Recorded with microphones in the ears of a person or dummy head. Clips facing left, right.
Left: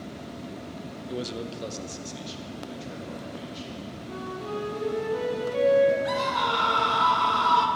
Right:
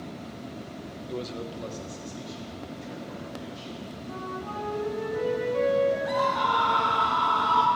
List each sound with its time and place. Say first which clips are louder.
1.1 s a man speaking: left 1 dB; 5° right (ahead or behind), 0.7 m; by 3.8 s 45° left (ahead or behind), 4.5 m
4.1 s a flute: left 3 dB; 35° left (ahead or behind), 2.5 m
6.0 s a scream: right 1 dB; 30° left (ahead or behind), 2 m